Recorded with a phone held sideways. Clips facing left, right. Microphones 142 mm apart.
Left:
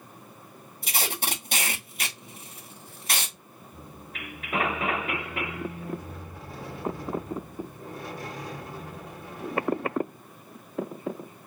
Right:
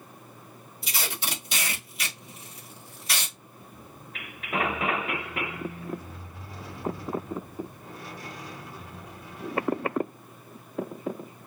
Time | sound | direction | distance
0.8 | tape being pulled | 50° left (ahead or behind) | 1.3 m
3.7 | a squeak | 45° left (ahead or behind) | 1.1 m